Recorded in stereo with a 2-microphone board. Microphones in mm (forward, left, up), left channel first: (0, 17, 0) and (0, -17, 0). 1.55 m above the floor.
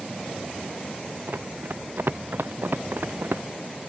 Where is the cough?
I don't hear a cough.